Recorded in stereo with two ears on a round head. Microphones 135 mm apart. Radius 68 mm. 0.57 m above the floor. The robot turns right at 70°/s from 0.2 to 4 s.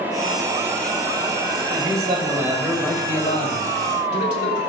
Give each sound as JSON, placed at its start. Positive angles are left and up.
{"t": 1.7, "sound": "a man speaking", "azimuth_deg": -65, "distance_m": 2.5}